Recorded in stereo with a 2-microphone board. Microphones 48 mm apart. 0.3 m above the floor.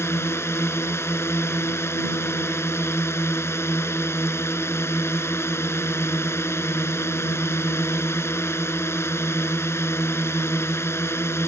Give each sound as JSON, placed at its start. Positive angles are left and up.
{"t": 0.0, "sound": "a drone", "side_deg": 65}